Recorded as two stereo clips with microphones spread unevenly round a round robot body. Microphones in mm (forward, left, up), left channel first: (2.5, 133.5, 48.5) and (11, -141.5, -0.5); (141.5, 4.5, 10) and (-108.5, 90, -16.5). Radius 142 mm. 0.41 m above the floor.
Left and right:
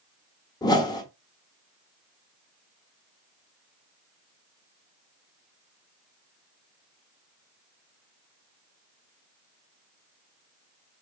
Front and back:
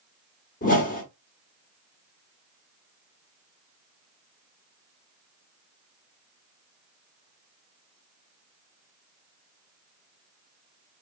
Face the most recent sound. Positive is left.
turn(degrees=10)